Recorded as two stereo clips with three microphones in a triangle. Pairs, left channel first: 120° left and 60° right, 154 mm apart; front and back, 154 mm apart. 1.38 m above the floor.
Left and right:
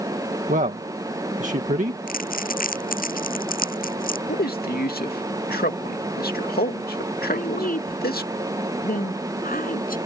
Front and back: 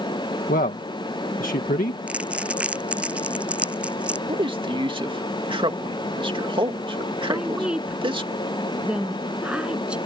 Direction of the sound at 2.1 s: 95° left.